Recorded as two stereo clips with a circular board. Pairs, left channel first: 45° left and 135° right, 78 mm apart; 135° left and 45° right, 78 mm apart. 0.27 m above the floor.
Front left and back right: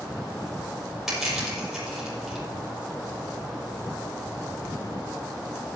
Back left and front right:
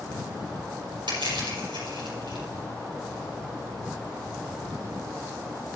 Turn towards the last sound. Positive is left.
turn(degrees=-50)